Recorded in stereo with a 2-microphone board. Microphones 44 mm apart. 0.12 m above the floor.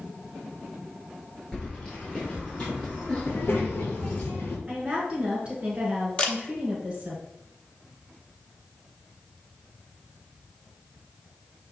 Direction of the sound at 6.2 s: 25° left (ahead or behind).